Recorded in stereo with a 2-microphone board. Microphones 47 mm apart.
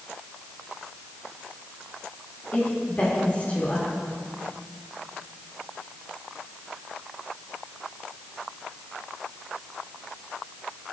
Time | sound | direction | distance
2.5 | a woman speaking | 35° left (ahead or behind) | 3 m